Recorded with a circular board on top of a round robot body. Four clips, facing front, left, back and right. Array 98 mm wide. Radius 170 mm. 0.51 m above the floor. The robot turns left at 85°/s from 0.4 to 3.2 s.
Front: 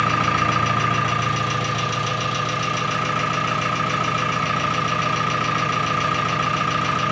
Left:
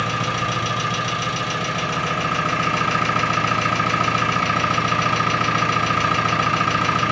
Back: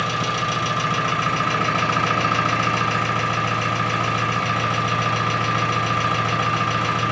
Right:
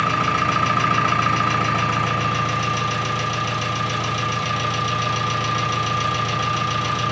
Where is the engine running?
30° right, 1.2 m; by 7.1 s 95° left, 1.2 m.